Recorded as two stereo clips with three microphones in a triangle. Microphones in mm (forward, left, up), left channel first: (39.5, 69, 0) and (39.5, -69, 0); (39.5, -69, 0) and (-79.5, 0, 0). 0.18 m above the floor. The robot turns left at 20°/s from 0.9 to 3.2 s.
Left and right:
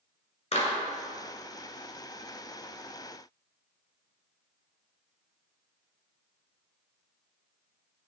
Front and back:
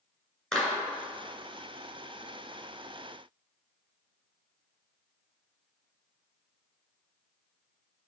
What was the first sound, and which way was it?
A clap, 55° left.